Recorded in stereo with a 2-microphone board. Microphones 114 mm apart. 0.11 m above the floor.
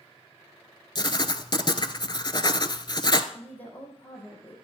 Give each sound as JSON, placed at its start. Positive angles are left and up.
{"t": 0.9, "sound": "writing", "side_deg": 40, "distance_m": 0.7}
{"t": 3.3, "sound": "a woman speaking", "side_deg": 15, "distance_m": 4.5}